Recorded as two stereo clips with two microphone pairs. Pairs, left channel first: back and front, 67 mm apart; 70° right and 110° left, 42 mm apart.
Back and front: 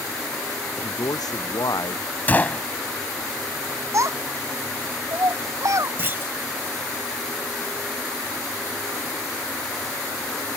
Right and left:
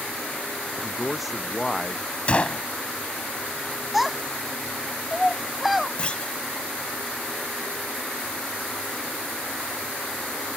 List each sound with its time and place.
0.8 s a man speaking: 160° right; by 2.0 s 165° right
2.3 s a gunshot: 120° right
3.9 s a child speaking: 25° left
6.0 s a clunk: 25° right